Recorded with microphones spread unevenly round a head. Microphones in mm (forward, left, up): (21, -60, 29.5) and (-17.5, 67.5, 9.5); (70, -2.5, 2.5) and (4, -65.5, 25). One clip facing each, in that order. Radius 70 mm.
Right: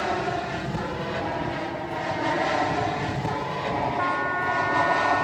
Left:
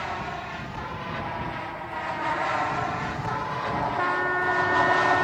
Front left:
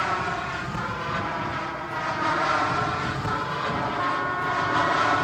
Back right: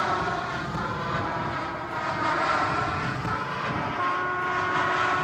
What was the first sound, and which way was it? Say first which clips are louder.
An aircraft: right 7 dB, even; 60° right.